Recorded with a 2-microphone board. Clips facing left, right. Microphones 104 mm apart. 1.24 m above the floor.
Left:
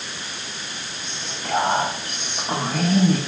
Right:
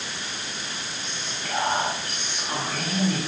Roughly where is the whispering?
Left.